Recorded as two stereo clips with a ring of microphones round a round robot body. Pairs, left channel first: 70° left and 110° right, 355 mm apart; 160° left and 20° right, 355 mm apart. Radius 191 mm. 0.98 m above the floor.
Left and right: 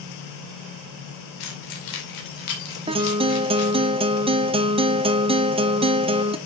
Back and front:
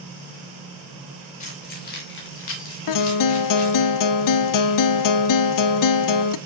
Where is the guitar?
175° left, 0.6 m.